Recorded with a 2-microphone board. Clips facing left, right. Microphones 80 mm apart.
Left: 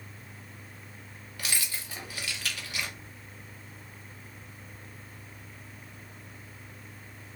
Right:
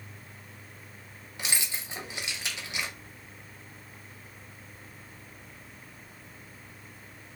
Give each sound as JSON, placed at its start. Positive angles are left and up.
{"t": 1.4, "sound": "keys jangling", "side_deg": -20, "distance_m": 0.6}